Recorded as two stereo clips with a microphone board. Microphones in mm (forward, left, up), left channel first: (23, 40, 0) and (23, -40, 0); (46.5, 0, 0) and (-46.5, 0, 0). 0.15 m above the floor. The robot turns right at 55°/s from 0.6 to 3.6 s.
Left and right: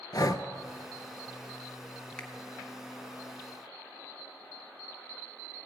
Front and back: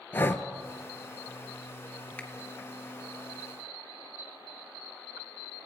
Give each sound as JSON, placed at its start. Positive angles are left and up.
{"t": 0.1, "sound": "breathing", "azimuth_deg": 65, "distance_m": 0.7}
{"t": 2.2, "sound": "a finger snap", "azimuth_deg": 40, "distance_m": 1.6}